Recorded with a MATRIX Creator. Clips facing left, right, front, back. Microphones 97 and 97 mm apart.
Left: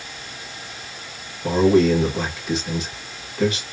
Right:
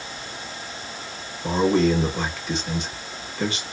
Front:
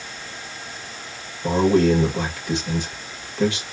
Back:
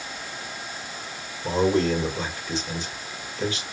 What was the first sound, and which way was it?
A man speaking, straight ahead.